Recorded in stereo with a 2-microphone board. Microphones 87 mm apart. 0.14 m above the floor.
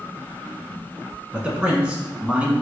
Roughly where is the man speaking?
Centre.